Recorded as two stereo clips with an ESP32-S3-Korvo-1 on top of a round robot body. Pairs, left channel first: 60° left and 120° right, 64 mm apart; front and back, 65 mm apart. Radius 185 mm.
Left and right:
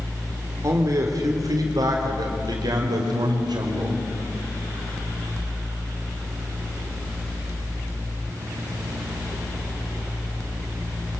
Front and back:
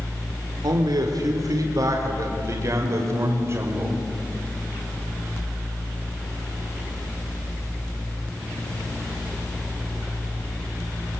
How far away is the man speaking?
About 3 m.